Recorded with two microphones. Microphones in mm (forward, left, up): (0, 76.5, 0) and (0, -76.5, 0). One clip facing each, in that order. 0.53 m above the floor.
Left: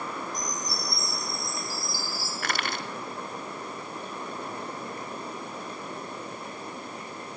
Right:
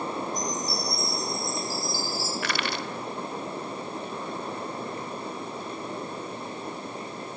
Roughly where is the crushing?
Left.